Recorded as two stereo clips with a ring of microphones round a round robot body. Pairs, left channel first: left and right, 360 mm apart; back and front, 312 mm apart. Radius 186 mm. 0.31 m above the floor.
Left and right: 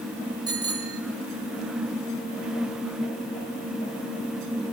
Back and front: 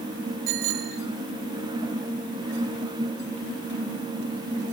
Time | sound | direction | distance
0.5 | a bicycle bell | 10° right | 4 m